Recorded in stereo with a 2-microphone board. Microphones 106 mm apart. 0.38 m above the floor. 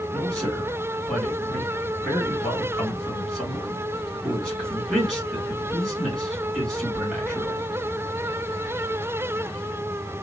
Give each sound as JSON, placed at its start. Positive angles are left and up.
{"t": 0.1, "sound": "a man speaking", "side_deg": 5, "distance_m": 2.0}